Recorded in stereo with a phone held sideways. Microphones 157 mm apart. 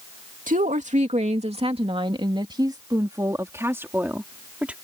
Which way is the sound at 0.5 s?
55° right (ahead or behind).